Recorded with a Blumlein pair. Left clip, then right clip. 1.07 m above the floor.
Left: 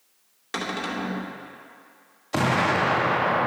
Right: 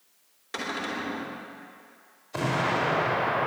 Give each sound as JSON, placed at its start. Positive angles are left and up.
{"t": 0.5, "sound": "a cupboard door", "azimuth_deg": 20, "distance_m": 2.5}
{"t": 2.3, "sound": "an explosion", "azimuth_deg": 40, "distance_m": 1.5}